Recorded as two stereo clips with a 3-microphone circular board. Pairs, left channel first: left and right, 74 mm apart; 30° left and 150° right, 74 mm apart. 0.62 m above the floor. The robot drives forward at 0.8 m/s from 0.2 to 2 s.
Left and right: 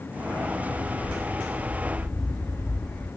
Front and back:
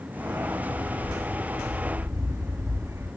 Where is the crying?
No crying in this recording.